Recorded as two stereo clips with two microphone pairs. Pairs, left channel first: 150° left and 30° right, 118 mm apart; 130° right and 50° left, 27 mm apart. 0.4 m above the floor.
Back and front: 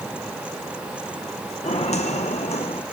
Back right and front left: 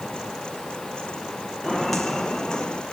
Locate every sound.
1.6 s footsteps: 130° left, 1.8 m; by 2.8 s 175° left, 1.4 m